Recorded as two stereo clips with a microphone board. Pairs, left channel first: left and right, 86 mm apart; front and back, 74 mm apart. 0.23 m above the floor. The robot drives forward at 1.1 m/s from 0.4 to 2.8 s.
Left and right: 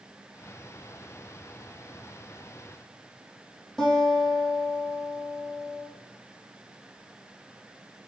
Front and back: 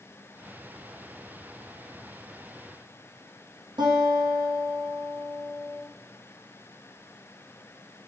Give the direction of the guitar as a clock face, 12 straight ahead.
6 o'clock.